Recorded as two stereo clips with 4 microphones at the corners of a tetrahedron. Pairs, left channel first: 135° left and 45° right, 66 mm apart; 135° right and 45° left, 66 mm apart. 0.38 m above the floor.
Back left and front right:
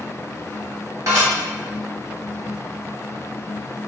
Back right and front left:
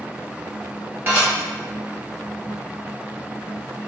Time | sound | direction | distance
1.1 | dishes clattering | 15° right | 1.5 m